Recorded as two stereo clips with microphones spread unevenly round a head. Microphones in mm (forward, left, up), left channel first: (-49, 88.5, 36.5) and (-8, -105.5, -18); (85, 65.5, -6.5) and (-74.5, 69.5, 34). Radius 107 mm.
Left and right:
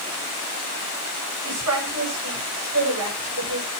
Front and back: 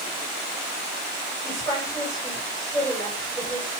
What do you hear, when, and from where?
1.4 s a woman speaking: 80° right, 7.5 m